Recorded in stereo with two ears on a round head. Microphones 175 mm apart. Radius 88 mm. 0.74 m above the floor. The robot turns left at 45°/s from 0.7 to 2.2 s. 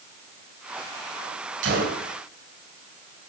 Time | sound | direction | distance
1.6 | a gunshot | 65° right (ahead or behind) | 2 m